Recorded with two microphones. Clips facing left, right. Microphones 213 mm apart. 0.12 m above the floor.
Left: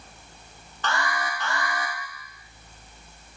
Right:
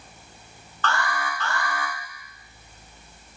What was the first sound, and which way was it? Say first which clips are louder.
An alarm: right 1 dB; 20° left (ahead or behind).